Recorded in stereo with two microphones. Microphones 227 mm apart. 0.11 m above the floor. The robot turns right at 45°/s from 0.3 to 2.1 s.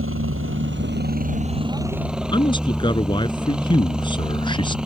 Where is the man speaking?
20° left (ahead or behind).